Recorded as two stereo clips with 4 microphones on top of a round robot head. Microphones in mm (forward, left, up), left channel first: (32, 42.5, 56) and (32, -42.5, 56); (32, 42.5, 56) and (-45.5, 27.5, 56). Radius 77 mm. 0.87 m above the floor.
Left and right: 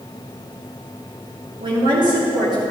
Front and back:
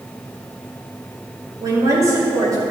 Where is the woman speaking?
120° right, 2.5 m.